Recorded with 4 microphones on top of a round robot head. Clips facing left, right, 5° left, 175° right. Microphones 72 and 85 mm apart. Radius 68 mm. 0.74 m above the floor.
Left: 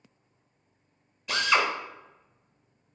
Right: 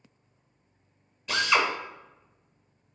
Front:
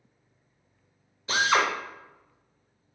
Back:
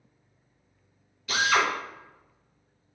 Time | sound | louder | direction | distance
1.3 | a drill | even, front 1 dB | 5° left | 1.1 m